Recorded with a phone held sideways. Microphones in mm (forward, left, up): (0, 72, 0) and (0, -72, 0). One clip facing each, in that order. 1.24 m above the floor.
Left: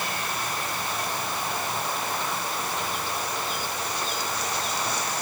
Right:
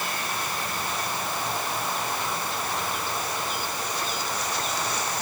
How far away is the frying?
No frying in this recording.